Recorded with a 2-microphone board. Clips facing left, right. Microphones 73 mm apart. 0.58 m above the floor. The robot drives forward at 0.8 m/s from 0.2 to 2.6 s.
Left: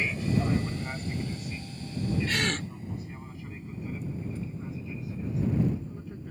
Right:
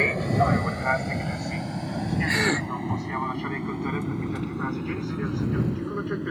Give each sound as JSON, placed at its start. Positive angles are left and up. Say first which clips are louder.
{"t": 0.0, "sound": "an aircraft", "louder": "right 6 dB", "side_deg": -50}
{"t": 2.3, "sound": "a gasp", "louder": "right 6 dB", "side_deg": -30}